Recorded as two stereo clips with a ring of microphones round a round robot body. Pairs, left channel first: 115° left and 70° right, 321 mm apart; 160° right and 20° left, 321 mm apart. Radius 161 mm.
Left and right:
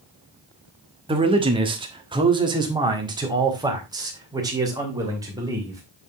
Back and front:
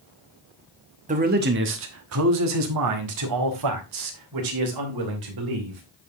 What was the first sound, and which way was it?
A man speaking, 15° right.